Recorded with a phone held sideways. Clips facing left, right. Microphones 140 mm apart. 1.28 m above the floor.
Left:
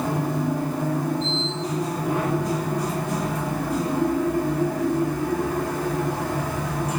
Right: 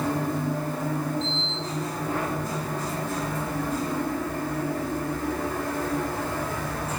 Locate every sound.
0.0 s a machine running: 15° left (ahead or behind), 8 m